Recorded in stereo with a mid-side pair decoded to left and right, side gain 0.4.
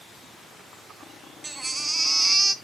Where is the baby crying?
20° right, 1.6 m.